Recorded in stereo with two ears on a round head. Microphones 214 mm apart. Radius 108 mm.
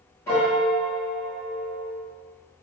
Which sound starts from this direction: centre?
A piano, at 0.3 s.